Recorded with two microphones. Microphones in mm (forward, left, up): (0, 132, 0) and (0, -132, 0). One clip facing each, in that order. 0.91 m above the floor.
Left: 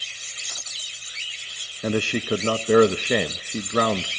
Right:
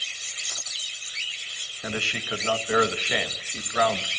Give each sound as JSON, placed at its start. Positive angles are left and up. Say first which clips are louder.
{"t": 1.8, "sound": "a man speaking", "louder": "left 10 dB", "side_deg": 50, "distance_m": 0.7}